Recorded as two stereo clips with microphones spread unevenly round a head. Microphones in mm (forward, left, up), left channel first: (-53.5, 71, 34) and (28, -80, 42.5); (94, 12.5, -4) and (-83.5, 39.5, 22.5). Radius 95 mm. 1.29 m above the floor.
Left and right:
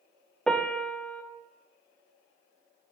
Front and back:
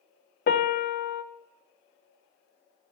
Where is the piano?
30° left, 0.6 m.